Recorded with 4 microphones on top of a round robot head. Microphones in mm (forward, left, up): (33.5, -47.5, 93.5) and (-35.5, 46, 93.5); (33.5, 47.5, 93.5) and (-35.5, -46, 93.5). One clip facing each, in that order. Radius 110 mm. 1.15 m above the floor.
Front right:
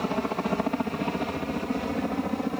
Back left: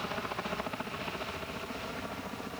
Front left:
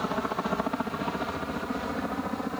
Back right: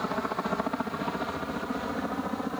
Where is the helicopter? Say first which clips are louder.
Front right 9 dB, front left 1 dB; 35° right; by 2.6 s 40° right.